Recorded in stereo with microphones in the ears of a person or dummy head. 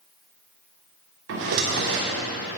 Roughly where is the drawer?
Right.